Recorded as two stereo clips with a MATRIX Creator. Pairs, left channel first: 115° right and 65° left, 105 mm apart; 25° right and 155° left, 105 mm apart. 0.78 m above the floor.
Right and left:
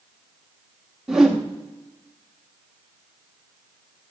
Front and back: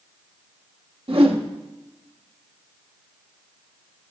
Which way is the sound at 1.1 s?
155° left.